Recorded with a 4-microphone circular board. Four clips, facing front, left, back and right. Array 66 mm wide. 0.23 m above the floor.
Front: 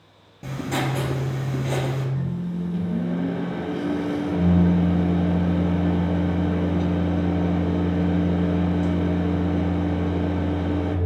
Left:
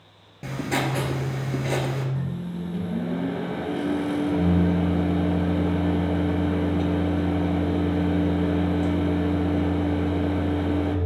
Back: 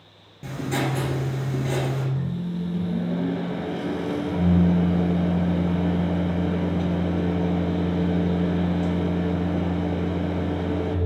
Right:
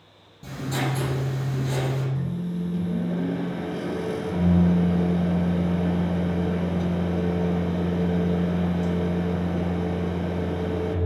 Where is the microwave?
95° left, 1.0 m.